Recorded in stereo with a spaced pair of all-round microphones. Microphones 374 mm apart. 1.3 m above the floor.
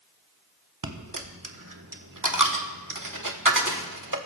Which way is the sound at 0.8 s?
55° right (ahead or behind).